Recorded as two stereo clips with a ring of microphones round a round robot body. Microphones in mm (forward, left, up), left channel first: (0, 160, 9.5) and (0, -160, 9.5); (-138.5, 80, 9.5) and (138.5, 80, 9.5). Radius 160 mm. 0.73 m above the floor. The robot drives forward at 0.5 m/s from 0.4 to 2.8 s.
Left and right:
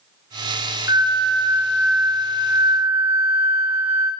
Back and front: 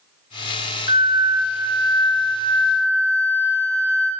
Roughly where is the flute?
Behind.